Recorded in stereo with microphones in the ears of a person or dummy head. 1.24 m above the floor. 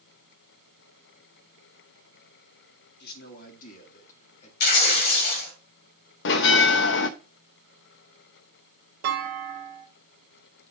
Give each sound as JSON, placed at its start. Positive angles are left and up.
{"t": 3.0, "sound": "a man speaking", "side_deg": 55, "distance_m": 2.5}
{"t": 4.6, "sound": "tearing paper", "side_deg": 55, "distance_m": 3.5}
{"t": 6.2, "sound": "a bell", "side_deg": 70, "distance_m": 1.0}
{"t": 9.0, "sound": "a clunk", "side_deg": -50, "distance_m": 1.7}